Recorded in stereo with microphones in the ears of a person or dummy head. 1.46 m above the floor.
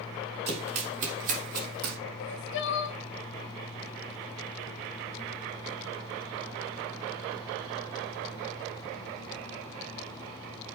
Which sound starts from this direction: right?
Running footsteps, at 0.5 s.